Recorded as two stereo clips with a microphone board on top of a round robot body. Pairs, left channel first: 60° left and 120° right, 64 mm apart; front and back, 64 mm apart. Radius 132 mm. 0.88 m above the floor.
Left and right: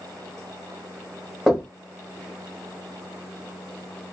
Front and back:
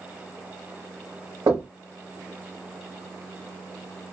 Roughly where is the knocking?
Behind left.